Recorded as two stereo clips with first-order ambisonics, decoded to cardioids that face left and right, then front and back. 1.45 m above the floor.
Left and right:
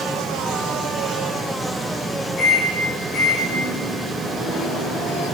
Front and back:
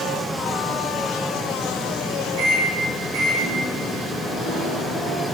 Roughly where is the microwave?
Behind left.